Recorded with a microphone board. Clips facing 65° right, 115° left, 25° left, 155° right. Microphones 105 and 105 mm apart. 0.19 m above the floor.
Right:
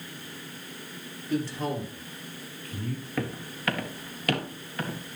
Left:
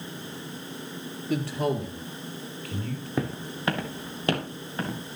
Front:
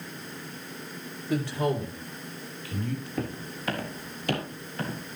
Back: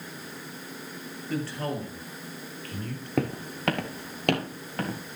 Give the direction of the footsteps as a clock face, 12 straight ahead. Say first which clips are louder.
Left 4 dB, back 5 dB; 6 o'clock.